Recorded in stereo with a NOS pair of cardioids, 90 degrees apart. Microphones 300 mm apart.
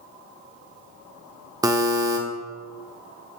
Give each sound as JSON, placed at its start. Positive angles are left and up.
{"t": 1.6, "sound": "a buzzer", "azimuth_deg": -15, "distance_m": 0.6}